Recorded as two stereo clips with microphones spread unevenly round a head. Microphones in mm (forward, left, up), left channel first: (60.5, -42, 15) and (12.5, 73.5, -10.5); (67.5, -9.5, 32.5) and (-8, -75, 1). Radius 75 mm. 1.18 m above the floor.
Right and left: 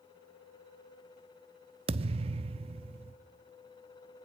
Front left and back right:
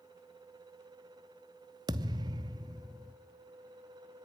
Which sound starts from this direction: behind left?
A thud, at 1.9 s.